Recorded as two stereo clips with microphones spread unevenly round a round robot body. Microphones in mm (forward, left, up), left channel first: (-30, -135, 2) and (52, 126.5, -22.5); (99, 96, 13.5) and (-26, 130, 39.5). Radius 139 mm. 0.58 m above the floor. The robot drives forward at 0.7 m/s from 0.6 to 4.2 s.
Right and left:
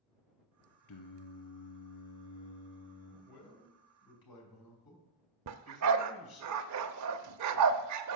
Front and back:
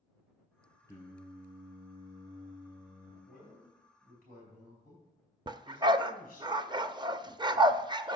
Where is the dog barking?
110° left, 0.6 m.